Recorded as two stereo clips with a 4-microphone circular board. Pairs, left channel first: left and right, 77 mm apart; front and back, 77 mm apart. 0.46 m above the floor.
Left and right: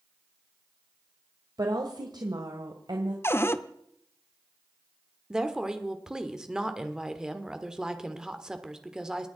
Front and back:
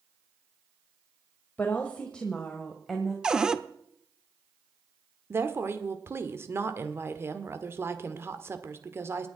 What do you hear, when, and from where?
1.6 s a woman speaking: 65° right, 1.7 m; by 3.1 s 90° right, 2 m
3.2 s a cupboard door: 110° left, 0.8 m
5.3 s a woman speaking: 165° right, 1.5 m